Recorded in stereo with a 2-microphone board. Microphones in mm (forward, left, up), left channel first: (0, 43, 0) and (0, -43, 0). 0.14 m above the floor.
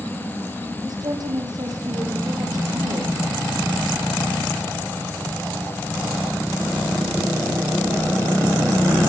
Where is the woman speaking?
50° right (ahead or behind), 7 m.